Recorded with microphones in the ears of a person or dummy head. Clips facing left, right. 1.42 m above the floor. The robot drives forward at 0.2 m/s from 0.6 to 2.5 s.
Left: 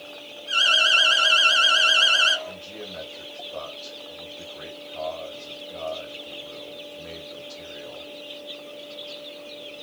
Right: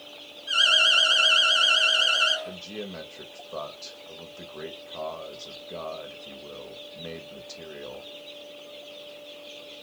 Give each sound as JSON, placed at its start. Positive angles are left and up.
{"t": 0.5, "sound": "an alarm", "side_deg": -50, "distance_m": 1.0}
{"t": 2.5, "sound": "a man speaking", "side_deg": -80, "distance_m": 1.3}